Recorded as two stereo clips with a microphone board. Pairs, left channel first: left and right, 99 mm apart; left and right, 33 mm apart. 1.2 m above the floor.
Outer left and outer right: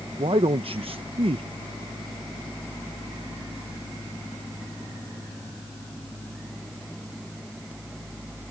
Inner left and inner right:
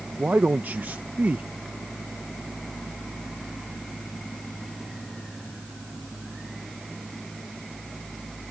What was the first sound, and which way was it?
A man speaking, 70° right (ahead or behind).